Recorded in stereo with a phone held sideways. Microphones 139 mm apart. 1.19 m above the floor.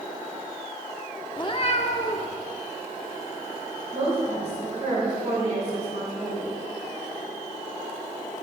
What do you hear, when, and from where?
1.4 s a cat meowing: 30° left (ahead or behind), 0.8 m; by 2.4 s 55° left (ahead or behind), 1.4 m
3.9 s a woman speaking: 55° right (ahead or behind), 4.5 m